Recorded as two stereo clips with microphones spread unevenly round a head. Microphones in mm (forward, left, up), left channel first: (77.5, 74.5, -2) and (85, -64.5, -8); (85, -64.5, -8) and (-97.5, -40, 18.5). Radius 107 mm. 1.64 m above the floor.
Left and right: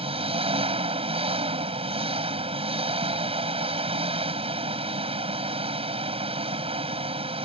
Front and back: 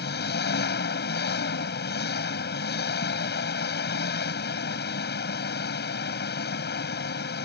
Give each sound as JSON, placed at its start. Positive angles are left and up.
{"t": 0.0, "sound": "an engine running", "azimuth_deg": -40}